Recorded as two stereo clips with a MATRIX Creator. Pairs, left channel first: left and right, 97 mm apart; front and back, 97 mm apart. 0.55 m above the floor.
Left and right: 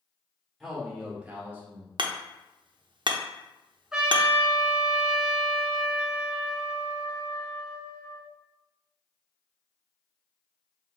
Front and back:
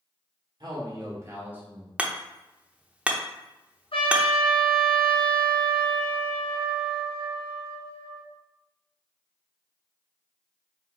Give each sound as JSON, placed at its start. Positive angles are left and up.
{"t": 0.6, "sound": "a man speaking", "azimuth_deg": 180, "distance_m": 1.9}
{"t": 2.0, "sound": "hammering", "azimuth_deg": -105, "distance_m": 0.6}
{"t": 3.9, "sound": "a trumpet", "azimuth_deg": -10, "distance_m": 1.1}